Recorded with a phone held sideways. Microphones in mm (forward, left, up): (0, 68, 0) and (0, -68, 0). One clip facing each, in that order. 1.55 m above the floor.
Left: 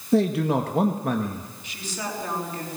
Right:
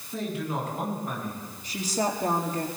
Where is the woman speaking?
40° right (ahead or behind), 4.5 m.